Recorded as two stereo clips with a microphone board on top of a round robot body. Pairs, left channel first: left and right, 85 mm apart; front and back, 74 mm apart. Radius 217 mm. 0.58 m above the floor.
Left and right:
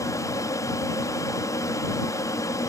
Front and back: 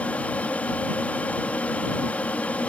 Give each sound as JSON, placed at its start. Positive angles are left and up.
{"t": 0.0, "sound": "an aircraft", "azimuth_deg": 65}